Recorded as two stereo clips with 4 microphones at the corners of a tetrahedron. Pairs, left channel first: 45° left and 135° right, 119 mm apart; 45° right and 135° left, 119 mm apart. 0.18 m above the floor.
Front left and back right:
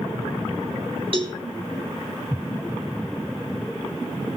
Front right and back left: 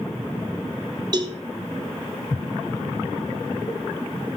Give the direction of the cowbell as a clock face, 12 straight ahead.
6 o'clock.